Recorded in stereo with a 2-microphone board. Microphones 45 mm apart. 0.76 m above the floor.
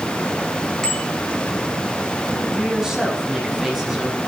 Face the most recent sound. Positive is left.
turn(degrees=-10)  # may be behind; listen again after turning